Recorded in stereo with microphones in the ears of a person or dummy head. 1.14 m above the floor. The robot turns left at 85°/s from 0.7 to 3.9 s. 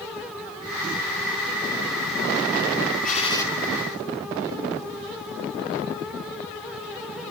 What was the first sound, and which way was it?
A gunshot, 50° left.